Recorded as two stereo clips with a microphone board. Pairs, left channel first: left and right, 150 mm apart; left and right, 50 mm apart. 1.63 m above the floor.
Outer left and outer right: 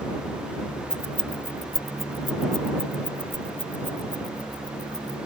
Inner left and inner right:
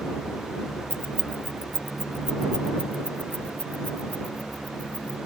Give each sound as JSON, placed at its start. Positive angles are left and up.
{"t": 0.9, "sound": "keys jangling", "side_deg": 55}